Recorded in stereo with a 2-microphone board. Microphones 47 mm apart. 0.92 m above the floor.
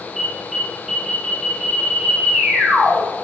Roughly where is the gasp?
No gasp in this recording.